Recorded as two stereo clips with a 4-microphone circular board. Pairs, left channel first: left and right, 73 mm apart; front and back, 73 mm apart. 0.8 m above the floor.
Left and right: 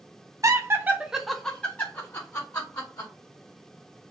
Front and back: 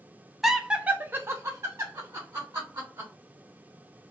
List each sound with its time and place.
0.4 s laughter: 95° right, 0.6 m; by 3.1 s 130° left, 1.1 m